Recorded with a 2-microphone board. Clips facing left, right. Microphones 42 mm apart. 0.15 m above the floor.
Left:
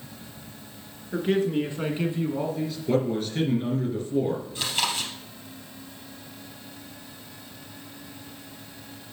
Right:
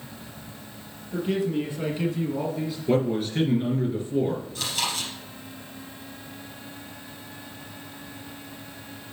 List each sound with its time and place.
1.1 s a man speaking: 55° left (ahead or behind), 2.5 m; by 2.8 s 15° right (ahead or behind), 1.5 m
2.9 s a man speaking: 10° right (ahead or behind), 2.5 m
4.5 s chewing: 25° left (ahead or behind), 3 m